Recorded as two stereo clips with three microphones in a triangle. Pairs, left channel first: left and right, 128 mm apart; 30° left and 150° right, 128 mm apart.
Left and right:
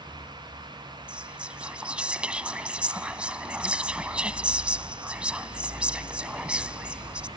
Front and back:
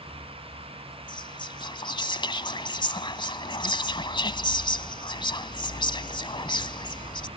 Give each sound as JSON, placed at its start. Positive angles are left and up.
{"t": 1.1, "sound": "whispering", "azimuth_deg": -10}